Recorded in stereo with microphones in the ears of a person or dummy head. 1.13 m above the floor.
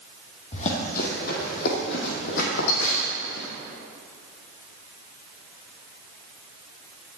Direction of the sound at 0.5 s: 45° left (ahead or behind).